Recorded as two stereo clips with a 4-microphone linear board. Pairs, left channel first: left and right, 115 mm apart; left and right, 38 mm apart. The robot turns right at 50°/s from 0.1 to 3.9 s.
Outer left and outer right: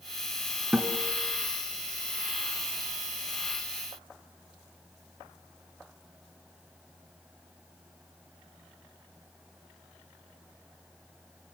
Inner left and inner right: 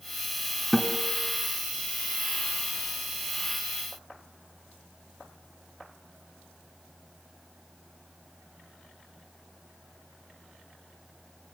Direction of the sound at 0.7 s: 10° right (ahead or behind).